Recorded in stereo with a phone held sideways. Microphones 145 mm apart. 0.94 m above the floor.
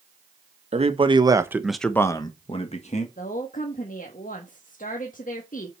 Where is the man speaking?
50° right (ahead or behind), 1.2 m; by 3.1 s 55° left (ahead or behind), 1.5 m.